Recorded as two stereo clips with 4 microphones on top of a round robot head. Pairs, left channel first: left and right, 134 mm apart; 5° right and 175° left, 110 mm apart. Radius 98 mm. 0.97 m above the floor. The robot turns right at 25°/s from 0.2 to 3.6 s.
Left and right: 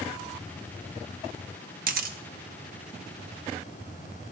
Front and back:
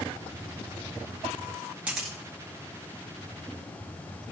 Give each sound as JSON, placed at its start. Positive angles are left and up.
{"t": 1.9, "sound": "a camera shutter", "azimuth_deg": -105, "distance_m": 0.9}